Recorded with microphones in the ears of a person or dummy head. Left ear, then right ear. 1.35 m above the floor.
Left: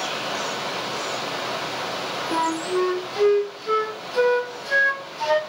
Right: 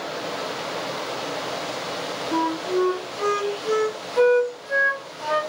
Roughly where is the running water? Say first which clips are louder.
Left 3 dB; centre.